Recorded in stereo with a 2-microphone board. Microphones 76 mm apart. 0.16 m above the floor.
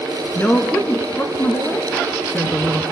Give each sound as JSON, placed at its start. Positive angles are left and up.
{"t": 0.3, "sound": "a woman speaking", "side_deg": 25, "distance_m": 2.0}